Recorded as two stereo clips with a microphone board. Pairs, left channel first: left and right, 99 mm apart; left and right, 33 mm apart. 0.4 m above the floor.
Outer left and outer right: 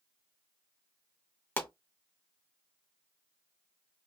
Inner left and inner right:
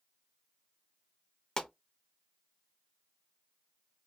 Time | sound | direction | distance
1.6 | a pop | 20° left (ahead or behind) | 0.6 m